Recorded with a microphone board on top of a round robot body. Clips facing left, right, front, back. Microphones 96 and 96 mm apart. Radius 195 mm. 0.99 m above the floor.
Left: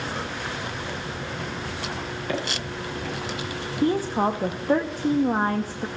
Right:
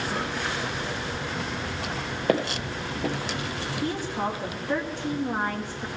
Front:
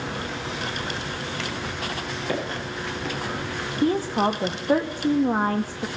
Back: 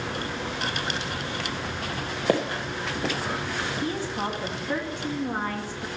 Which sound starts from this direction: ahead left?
A woman speaking, at 3.8 s.